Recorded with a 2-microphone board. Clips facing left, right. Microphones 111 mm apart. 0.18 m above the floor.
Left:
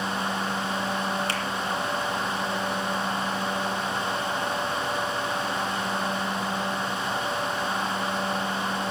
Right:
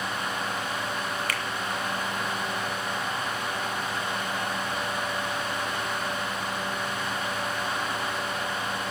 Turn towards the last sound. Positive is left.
turn(degrees=30)  # may be behind; listen again after turning